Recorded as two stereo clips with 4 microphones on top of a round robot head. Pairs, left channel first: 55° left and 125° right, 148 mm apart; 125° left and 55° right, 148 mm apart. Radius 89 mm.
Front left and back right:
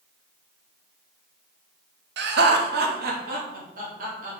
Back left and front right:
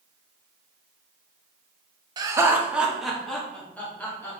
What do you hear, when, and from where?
2.2 s laughter: 120° right, 1.0 m; by 4.4 s 160° right, 2.5 m